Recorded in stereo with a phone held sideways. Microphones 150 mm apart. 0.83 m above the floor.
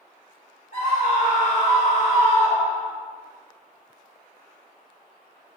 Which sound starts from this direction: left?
A scream, at 0.7 s.